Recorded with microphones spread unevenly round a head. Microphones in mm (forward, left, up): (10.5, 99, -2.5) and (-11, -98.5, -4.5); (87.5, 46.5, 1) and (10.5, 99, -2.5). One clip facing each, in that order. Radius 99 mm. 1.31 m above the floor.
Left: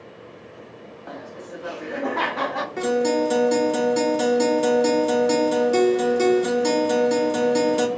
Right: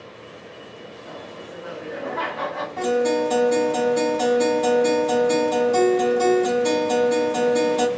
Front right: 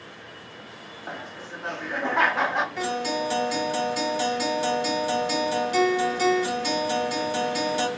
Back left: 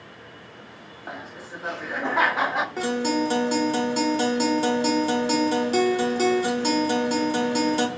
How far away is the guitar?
About 1.1 m.